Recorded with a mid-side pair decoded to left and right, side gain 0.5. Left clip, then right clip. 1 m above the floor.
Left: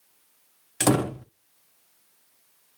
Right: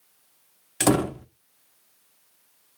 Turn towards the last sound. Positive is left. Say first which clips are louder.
# right 1 dB
turn(degrees=0)